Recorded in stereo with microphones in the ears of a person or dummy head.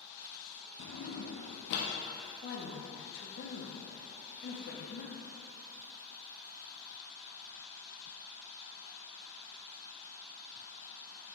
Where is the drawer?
55° left (ahead or behind), 0.6 m.